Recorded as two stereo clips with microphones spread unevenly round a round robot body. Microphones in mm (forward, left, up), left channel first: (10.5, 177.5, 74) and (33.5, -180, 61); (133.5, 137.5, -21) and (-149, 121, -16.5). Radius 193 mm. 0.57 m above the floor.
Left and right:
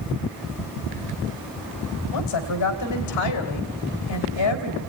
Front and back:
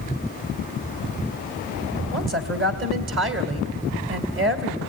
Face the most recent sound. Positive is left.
turn(degrees=135)